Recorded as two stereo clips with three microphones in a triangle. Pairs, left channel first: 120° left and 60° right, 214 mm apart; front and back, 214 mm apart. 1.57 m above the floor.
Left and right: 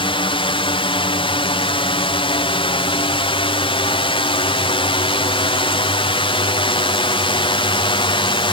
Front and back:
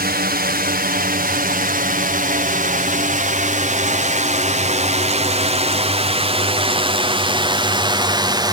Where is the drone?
175° left; by 8.5 s 140° left.